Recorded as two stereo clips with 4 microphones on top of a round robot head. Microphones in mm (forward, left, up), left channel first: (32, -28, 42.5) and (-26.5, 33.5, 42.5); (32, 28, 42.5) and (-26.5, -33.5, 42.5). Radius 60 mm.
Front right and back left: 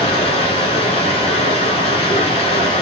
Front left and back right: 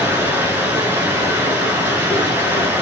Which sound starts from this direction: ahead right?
Running water, at 0.0 s.